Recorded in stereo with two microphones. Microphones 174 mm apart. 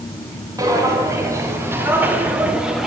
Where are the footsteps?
20° right (ahead or behind), 5 m; by 2.9 s centre (ahead or behind), 3 m.